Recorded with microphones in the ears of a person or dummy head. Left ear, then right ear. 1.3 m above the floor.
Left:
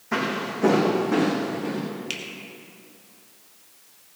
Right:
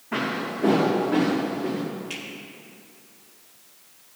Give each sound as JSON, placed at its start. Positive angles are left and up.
{"t": 0.1, "sound": "footsteps", "side_deg": 60, "distance_m": 4.0}
{"t": 2.1, "sound": "a finger snap", "side_deg": 40, "distance_m": 2.5}